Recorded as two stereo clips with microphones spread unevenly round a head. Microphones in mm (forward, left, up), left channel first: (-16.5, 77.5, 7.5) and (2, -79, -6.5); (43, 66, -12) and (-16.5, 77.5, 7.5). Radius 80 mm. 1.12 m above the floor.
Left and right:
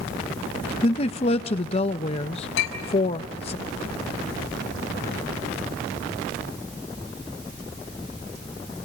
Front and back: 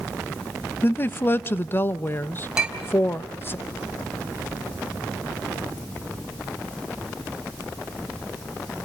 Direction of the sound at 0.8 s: 40° left.